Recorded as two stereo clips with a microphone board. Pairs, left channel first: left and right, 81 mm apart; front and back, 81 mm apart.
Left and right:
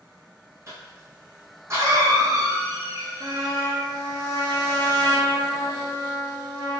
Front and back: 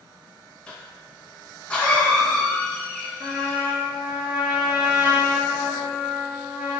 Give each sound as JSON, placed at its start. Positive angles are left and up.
{"t": 0.7, "sound": "a cough", "azimuth_deg": -65, "distance_m": 1.3}
{"t": 3.2, "sound": "a trumpet", "azimuth_deg": -110, "distance_m": 0.6}